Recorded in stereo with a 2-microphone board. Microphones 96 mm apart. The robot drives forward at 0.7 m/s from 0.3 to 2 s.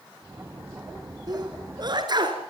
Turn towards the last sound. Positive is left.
turn(degrees=-50)  # may be behind; listen again after turning